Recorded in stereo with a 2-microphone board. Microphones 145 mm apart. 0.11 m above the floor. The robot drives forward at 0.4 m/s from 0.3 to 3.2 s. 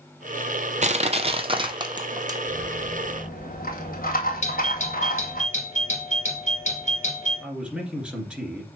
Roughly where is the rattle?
Left.